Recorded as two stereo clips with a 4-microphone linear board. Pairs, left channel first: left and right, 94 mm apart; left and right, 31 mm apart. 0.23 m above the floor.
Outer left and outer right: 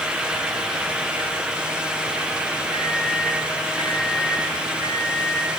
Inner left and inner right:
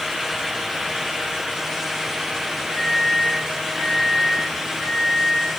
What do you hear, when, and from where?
2.7 s a microwave: 50° left (ahead or behind), 4.5 m